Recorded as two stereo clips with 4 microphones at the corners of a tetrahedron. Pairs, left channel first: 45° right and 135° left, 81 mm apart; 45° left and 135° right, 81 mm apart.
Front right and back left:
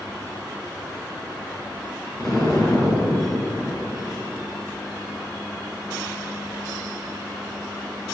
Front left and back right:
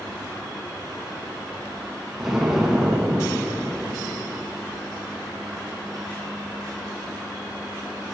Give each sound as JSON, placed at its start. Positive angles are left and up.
{"t": 2.2, "sound": "an explosion", "azimuth_deg": -50, "distance_m": 1.8}